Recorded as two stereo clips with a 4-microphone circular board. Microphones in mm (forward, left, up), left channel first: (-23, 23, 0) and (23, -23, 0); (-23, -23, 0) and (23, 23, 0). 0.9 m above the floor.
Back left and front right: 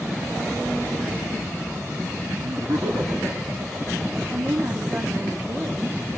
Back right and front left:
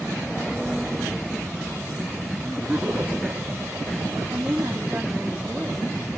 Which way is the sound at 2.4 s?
45° right.